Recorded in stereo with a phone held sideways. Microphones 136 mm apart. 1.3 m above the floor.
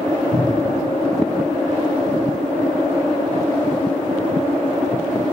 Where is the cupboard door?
75° right (ahead or behind), 2 m.